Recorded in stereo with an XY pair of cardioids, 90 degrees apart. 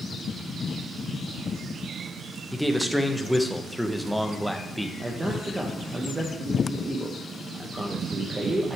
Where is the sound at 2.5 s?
5° left, 1.3 m.